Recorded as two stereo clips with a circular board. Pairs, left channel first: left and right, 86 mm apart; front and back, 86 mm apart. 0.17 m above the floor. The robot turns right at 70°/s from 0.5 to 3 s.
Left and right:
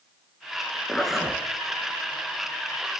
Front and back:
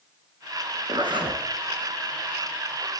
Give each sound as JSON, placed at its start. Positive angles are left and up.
{"t": 0.9, "sound": "a zipper", "azimuth_deg": 165, "distance_m": 1.1}